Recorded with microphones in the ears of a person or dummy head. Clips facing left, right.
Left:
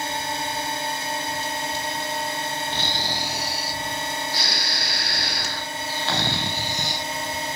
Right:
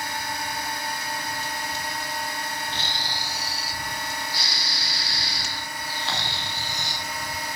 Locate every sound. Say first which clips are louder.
0.0 s a drone: left 3 dB; 25° left (ahead or behind)
2.7 s snoring: left 4 dB; 50° left (ahead or behind)